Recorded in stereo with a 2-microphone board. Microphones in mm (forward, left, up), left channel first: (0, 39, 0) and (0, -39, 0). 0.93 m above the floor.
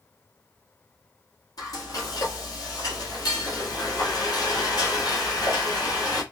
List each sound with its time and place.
1.6 s frying: 55° left (ahead or behind), 1.5 m